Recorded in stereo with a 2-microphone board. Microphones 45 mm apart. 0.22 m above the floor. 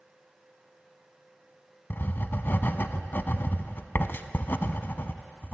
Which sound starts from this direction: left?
Writing, at 1.9 s.